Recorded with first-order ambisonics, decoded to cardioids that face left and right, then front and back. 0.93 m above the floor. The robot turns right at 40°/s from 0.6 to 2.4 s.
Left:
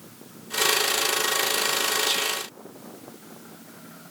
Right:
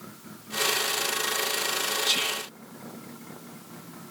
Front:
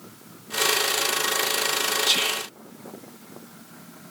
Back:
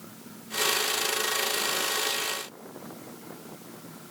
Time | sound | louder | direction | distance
2.0 | whispering | left 1 dB, front 7 dB | 20° right | 0.5 m